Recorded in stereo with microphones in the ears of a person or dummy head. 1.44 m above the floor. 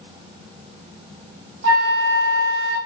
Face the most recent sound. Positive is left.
turn(degrees=-50)  # may be behind; listen again after turning